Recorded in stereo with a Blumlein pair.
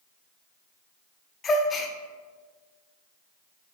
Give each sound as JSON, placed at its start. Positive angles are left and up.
{"t": 1.4, "sound": "a gasp", "azimuth_deg": 20, "distance_m": 0.5}